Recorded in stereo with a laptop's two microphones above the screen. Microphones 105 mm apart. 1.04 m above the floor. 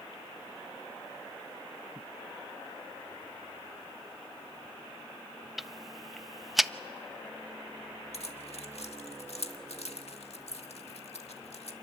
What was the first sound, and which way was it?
Ticking, centre (ahead or behind).